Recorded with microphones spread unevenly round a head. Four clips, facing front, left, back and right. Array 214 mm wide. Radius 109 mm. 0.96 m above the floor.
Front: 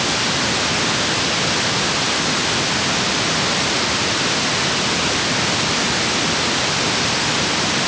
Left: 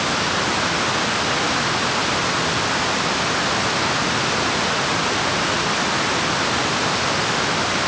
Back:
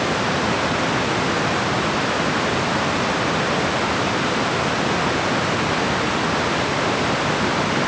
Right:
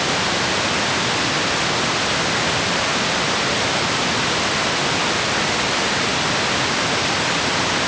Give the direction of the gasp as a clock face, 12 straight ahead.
No gasp in this recording.